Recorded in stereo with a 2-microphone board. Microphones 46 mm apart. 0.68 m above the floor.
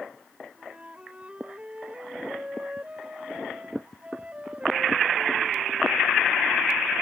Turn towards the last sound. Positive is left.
turn(degrees=-30)  # may be behind; listen again after turning